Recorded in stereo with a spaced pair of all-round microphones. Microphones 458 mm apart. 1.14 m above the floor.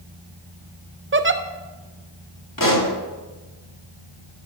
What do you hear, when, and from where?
1.1 s a giggle: 30° right (ahead or behind), 0.5 m
2.6 s a pop: 45° left (ahead or behind), 1.5 m